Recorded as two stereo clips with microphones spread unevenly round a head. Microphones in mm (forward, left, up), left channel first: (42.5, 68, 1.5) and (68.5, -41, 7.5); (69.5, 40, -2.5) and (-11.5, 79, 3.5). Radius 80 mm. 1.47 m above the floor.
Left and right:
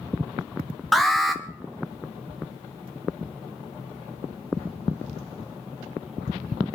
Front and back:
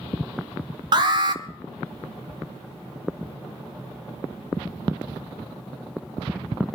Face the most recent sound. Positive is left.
turn(degrees=-170)